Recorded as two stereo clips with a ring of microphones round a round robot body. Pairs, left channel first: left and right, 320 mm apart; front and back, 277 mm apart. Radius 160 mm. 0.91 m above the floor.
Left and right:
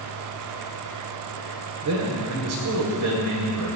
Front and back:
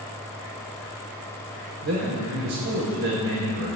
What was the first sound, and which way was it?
A man speaking, 125° right.